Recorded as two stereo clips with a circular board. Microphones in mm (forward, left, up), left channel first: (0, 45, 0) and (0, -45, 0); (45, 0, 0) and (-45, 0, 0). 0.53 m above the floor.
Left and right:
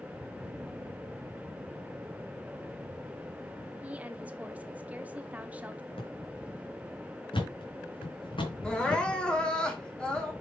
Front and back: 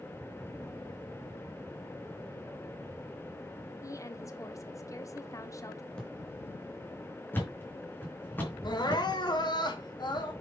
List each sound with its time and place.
3.8 s a woman speaking: 20° right, 1.1 m
5.9 s a drawer: 80° left, 3 m
7.3 s a thud: 70° left, 3 m
8.6 s crying: 15° left, 2 m